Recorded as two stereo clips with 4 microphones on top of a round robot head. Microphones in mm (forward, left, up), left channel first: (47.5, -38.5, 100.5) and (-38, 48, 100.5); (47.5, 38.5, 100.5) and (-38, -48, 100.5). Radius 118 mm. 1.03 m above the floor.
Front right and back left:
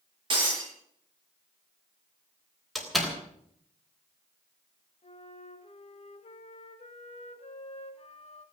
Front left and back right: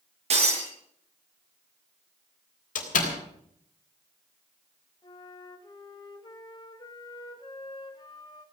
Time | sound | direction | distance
0.3 | breaking glass | 175° right | 8.5 m
2.8 | a door slam | 45° left | 3.5 m
5.0 | a flute | 10° right | 2 m